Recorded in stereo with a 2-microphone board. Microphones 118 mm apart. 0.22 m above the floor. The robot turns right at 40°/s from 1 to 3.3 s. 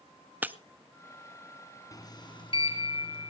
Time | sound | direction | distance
0.4 | breaking glass | 15° right (ahead or behind) | 0.5 m
1.9 | a sliding door | 40° left | 2 m